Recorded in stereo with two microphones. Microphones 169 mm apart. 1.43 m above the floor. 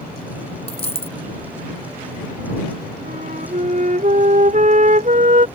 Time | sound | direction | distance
0.7 | a dropped coin | 40° left (ahead or behind) | ?
3.0 | a flute | 55° right (ahead or behind) | ?